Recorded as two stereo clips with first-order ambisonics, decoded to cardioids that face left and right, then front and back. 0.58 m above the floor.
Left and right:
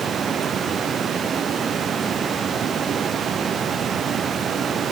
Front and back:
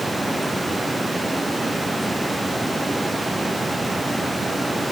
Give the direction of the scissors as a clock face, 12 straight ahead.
No scissors in this recording.